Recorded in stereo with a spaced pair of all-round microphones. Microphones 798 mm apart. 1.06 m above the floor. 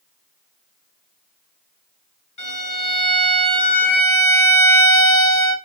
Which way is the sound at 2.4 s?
75° left (ahead or behind).